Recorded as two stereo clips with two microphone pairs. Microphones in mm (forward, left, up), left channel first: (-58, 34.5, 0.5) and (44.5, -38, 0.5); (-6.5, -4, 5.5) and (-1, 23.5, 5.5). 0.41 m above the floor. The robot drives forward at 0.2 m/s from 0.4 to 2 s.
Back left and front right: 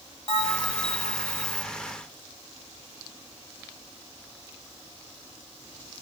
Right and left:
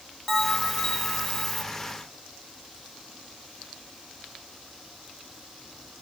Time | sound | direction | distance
0.3 | a bell | 165° left | 1.3 m